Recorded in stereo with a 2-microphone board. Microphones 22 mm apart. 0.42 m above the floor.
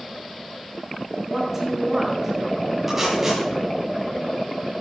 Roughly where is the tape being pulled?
Centre.